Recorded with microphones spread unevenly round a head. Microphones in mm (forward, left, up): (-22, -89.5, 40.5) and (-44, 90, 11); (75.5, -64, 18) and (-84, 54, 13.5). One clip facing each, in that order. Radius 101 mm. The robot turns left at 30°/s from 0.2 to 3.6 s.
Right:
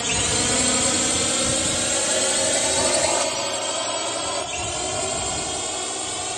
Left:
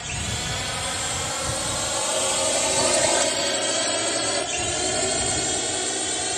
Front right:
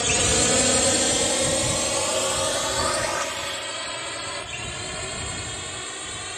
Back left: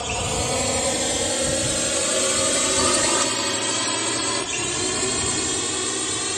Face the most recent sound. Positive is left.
turn(degrees=175)